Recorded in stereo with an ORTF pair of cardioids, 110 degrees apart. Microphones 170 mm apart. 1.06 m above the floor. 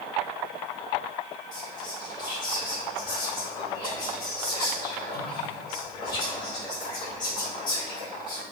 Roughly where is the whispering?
Ahead left.